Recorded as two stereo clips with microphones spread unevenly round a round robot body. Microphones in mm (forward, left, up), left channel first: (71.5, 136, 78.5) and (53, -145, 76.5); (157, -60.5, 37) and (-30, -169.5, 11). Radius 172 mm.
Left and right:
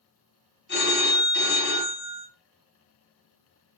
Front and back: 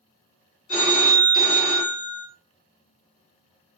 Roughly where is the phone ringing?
Ahead left.